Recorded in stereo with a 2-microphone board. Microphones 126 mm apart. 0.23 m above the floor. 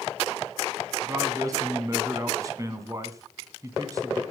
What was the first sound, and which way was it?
A man speaking, 30° right (ahead or behind).